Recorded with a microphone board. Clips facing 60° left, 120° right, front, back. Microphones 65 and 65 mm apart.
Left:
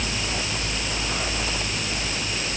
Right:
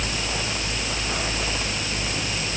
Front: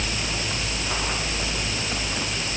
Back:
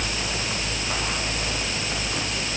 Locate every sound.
Only background noise.